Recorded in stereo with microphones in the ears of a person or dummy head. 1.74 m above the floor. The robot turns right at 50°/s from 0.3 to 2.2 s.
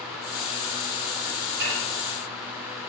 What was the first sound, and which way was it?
Dishes clattering, 65° right (ahead or behind).